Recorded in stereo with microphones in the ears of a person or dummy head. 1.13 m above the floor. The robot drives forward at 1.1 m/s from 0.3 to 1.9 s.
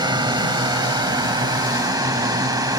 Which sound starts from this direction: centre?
A drone, at 0.0 s.